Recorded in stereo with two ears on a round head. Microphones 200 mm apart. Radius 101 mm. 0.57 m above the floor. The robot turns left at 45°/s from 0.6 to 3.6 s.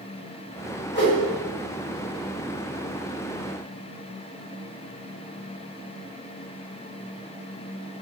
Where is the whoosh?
50° left (ahead or behind), 1.5 m.